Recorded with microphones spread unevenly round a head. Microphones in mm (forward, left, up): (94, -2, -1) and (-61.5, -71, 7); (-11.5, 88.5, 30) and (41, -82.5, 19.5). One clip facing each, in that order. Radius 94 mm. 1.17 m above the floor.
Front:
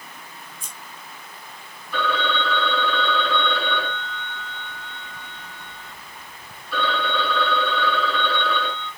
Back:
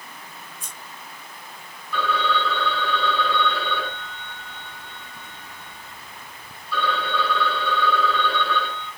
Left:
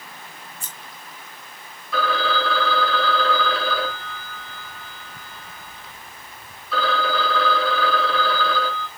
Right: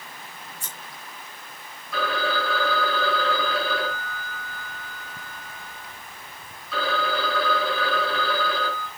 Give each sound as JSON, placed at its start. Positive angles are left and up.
{"t": 0.6, "sound": "scissors", "azimuth_deg": 45, "distance_m": 4.5}
{"t": 1.9, "sound": "a phone ringing", "azimuth_deg": 75, "distance_m": 5.0}